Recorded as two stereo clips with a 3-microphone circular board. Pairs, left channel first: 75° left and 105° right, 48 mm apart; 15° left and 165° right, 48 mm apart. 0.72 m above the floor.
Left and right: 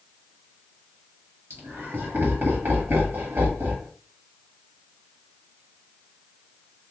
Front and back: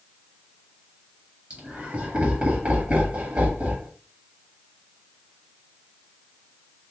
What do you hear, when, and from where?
1.5 s laughter: 135° right, 1.7 m